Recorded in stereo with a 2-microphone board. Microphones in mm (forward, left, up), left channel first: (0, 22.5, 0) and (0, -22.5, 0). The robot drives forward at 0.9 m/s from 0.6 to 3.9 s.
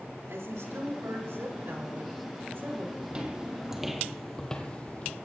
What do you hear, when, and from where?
0.3 s a woman speaking: 90° right, 3.5 m; by 2.9 s 60° right (ahead or behind), 4 m
3.0 s footsteps: 25° right (ahead or behind), 2 m; by 5.2 s 35° left (ahead or behind), 2.0 m